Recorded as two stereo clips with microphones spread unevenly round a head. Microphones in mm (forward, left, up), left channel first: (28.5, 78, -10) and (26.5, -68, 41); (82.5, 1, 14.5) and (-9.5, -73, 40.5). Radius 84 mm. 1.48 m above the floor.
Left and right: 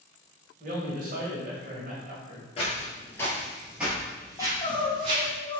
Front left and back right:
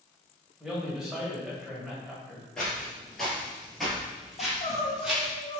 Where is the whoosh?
No whoosh in this recording.